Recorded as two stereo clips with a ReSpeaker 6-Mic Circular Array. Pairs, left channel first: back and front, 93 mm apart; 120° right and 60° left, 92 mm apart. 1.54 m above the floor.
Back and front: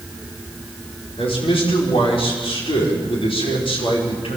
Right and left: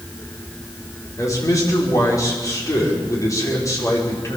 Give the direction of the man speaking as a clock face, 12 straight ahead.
6 o'clock.